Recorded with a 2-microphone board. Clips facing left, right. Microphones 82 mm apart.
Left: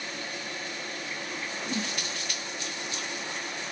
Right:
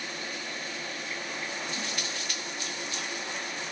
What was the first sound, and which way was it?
A whoosh, 65° left (ahead or behind).